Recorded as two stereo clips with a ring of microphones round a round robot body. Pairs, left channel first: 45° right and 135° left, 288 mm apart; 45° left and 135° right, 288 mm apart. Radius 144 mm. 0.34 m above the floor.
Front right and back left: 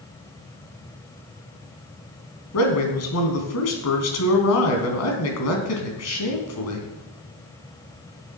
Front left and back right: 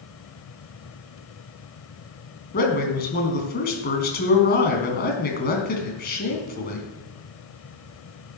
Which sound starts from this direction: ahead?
A man speaking, at 2.5 s.